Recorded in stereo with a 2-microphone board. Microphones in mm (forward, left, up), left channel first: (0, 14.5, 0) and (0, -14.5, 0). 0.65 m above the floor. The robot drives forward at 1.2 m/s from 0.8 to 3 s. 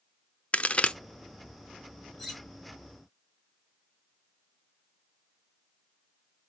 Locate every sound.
0.5 s a crack: 40° left (ahead or behind), 0.6 m; by 0.9 s 30° left (ahead or behind), 0.7 m
2.2 s cutlery clinking: centre (ahead or behind), 3 m